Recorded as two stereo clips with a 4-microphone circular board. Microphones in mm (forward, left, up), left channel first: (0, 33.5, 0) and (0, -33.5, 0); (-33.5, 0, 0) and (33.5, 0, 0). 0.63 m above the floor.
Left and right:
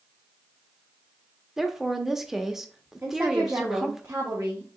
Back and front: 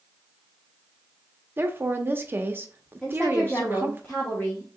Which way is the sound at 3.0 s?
125° right.